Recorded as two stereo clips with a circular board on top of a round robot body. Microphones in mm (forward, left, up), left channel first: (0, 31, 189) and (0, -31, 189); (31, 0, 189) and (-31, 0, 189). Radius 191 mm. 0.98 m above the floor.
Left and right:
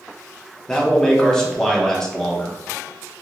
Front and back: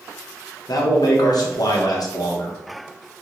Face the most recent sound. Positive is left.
turn(degrees=10)